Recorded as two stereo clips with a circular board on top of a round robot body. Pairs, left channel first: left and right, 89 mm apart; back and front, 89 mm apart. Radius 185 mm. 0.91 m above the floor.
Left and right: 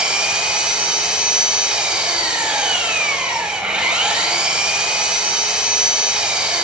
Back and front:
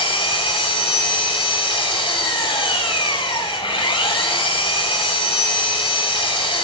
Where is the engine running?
170° right, 5.5 m.